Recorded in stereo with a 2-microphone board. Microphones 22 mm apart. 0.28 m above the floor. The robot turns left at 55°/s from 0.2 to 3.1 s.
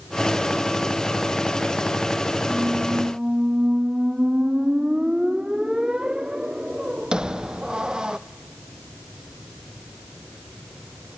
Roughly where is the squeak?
Right.